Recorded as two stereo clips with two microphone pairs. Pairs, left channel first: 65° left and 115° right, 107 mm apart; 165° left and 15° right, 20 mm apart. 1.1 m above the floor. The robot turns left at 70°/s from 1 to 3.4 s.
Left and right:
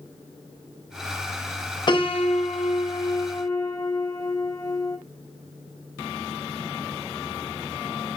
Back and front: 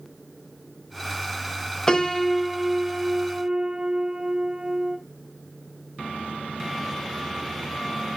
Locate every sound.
1.9 s a piano: 110° left, 0.6 m; by 5.0 s 5° left, 0.6 m